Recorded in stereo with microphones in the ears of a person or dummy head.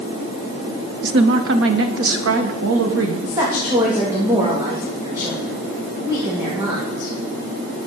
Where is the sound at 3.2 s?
20° right (ahead or behind), 1.8 m.